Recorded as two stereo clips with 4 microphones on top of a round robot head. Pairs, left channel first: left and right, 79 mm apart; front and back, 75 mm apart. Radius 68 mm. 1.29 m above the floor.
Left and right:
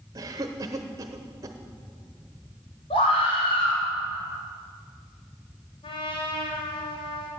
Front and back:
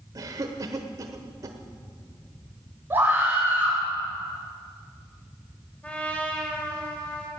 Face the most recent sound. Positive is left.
turn(degrees=75)